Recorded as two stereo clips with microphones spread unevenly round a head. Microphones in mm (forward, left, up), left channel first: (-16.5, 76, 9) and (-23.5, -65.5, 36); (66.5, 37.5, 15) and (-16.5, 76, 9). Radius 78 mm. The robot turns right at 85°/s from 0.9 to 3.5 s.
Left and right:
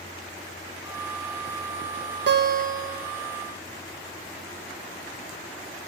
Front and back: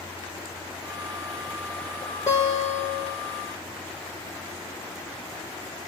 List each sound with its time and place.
2.3 s a guitar: 95° right, 1.4 m; by 3.2 s 20° right, 1.4 m